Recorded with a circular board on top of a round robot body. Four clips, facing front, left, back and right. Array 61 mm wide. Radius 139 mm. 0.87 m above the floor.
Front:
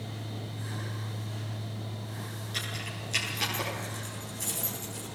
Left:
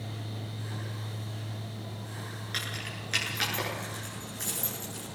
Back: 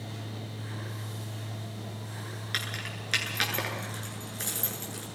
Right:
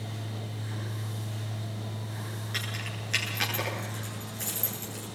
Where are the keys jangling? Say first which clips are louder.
Even, back 3 dB; 170° left, 8.5 m.